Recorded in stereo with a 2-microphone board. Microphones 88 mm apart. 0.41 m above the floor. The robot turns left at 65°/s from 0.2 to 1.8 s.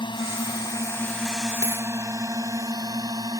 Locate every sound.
0.0 s a drone: 65° left (ahead or behind); by 3.4 s 50° right (ahead or behind)
1.6 s a dropped coin: 40° left (ahead or behind); by 1.9 s 50° left (ahead or behind)